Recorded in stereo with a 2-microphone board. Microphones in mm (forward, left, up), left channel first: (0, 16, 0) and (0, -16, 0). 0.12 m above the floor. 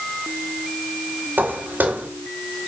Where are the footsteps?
90° right, 3 m.